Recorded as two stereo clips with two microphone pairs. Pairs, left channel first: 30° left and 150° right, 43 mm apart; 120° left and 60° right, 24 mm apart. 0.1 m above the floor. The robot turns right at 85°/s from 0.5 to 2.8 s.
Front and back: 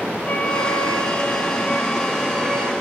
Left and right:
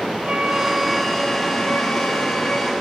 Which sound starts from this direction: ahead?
A flute, at 0.2 s.